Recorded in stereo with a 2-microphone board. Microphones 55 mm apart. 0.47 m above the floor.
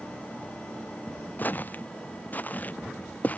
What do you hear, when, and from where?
1.4 s footsteps: 35° left (ahead or behind); by 3.4 s 30° left (ahead or behind)